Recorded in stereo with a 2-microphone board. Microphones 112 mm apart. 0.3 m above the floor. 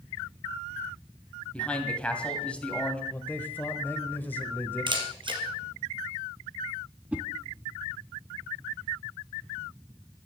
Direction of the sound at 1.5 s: 10° left (ahead or behind).